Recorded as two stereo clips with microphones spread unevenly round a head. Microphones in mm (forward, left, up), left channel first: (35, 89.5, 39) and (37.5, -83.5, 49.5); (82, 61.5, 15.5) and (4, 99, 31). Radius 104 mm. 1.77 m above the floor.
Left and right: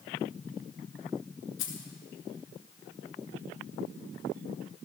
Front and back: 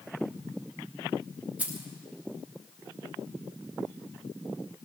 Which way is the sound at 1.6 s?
85° left.